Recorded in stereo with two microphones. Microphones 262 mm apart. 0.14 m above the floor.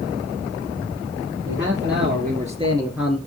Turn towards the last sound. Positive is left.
turn(degrees=5)  # may be behind; listen again after turning